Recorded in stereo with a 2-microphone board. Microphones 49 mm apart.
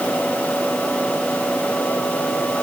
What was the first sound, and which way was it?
Only background noise.